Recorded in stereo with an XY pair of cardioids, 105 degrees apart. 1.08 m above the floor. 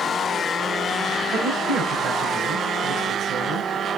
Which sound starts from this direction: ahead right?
A man speaking, at 1.3 s.